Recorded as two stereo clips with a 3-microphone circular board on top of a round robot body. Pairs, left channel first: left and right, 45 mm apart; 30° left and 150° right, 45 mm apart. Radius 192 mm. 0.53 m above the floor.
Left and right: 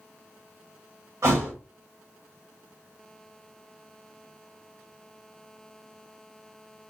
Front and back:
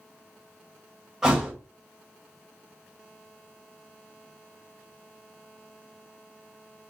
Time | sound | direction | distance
1.2 | a thud | 70° right | 1.4 m